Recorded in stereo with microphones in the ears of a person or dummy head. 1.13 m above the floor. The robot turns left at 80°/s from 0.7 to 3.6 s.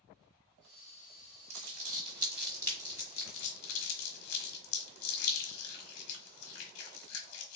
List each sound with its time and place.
1.5 s crumpling: 80° right, 1.3 m; by 7.6 s 85° left, 1.3 m